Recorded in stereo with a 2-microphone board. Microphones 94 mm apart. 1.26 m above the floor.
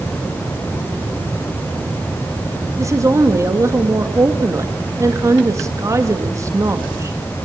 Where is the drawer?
I don't hear a drawer.